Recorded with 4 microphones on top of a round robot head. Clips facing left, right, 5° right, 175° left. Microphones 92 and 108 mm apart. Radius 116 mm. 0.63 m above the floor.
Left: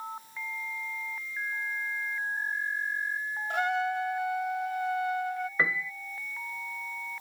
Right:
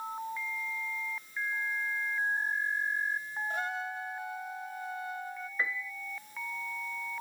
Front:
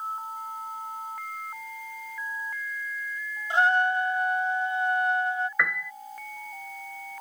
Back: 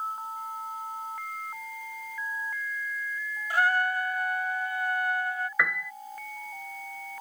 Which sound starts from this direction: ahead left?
A trumpet, at 3.5 s.